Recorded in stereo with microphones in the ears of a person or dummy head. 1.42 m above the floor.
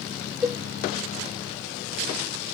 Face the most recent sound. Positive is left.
turn(degrees=5)  # may be behind; listen again after turning